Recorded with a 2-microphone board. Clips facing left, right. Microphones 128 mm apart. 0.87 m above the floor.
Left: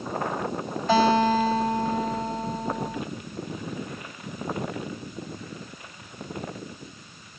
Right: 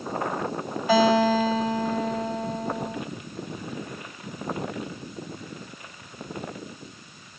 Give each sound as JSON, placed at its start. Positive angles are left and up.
{"t": 0.9, "sound": "a guitar", "side_deg": -10, "distance_m": 1.5}